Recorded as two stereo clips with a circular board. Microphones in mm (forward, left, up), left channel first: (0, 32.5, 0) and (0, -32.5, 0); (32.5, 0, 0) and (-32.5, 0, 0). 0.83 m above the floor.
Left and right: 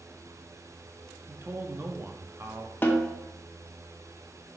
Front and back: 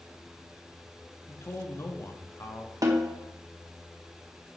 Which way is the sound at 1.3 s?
40° right.